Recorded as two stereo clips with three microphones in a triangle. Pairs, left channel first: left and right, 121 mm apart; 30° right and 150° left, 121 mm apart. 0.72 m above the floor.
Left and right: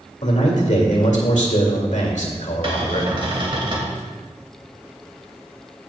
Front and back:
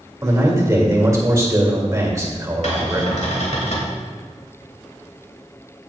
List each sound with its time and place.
0.2 s a man speaking: 90° left, 2 m
2.6 s a cupboard door: 45° right, 2.5 m